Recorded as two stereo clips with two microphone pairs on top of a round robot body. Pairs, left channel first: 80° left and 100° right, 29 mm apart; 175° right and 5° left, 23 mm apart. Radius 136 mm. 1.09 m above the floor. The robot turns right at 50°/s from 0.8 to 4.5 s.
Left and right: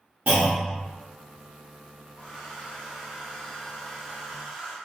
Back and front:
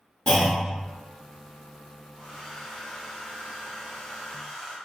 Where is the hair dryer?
125° left, 1.7 m; by 4.8 s 115° right, 1.7 m.